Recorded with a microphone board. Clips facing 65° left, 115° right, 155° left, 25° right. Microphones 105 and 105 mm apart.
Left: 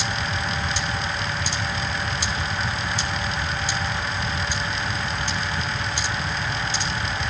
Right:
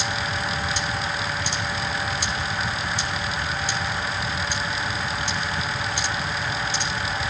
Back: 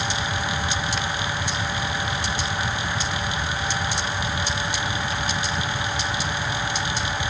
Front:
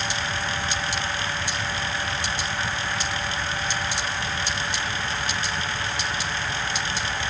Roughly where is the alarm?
I don't hear an alarm.